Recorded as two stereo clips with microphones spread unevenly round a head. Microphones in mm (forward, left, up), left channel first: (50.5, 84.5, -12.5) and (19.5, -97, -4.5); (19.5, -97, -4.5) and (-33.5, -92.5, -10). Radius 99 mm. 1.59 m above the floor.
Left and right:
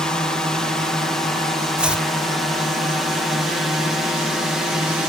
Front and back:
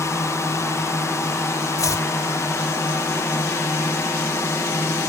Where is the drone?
5° right; by 5.1 s 10° right.